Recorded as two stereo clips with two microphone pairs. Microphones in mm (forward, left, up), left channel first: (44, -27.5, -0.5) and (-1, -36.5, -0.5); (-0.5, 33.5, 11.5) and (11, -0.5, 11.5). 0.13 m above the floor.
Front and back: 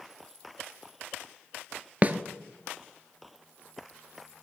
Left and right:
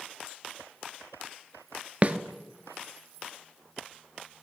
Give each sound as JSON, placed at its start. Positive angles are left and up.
{"t": 2.0, "sound": "a snare drum", "azimuth_deg": -120, "distance_m": 0.7}